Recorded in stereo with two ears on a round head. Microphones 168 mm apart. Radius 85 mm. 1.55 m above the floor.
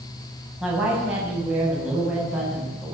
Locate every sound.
0.6 s a woman speaking: 5° right (ahead or behind), 9 m